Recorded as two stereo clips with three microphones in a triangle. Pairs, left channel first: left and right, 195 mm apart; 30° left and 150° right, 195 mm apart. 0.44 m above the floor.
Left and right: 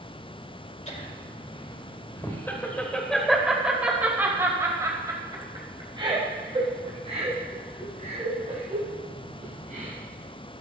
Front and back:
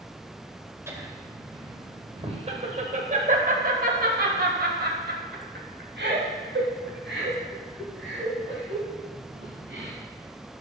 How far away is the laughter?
About 2 m.